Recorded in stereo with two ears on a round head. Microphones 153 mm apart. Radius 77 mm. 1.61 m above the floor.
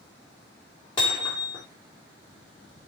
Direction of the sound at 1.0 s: 30° left (ahead or behind).